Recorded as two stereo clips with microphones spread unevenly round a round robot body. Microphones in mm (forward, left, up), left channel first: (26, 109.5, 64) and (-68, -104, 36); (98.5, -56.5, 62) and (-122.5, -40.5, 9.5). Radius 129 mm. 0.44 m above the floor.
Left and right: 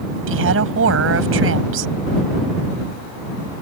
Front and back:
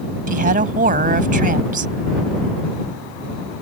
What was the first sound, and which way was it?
A woman speaking, 135° right.